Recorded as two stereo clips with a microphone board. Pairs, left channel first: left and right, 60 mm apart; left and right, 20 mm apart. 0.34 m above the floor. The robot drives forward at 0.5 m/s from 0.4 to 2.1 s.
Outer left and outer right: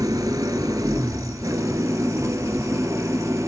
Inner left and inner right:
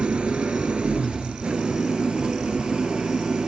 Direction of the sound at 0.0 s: 85° right.